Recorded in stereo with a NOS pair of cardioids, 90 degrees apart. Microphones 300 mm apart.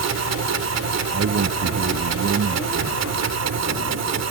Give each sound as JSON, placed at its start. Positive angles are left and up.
{"t": 0.0, "sound": "a machine running", "azimuth_deg": -60}
{"t": 1.1, "sound": "a man speaking", "azimuth_deg": -50}